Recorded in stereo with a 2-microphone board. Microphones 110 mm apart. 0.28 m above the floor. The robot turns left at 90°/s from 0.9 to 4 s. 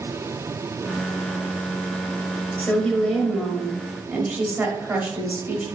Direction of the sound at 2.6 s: 15° left (ahead or behind).